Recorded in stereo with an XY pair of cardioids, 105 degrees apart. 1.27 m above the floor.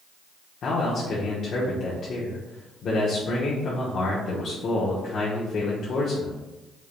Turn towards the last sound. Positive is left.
turn(degrees=55)